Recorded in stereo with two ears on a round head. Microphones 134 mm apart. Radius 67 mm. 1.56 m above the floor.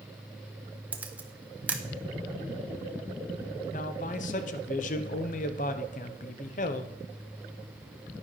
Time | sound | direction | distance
0.9 | a camera shutter | 10° right (ahead or behind) | 0.7 m
3.7 | a man speaking | 55° left (ahead or behind) | 0.8 m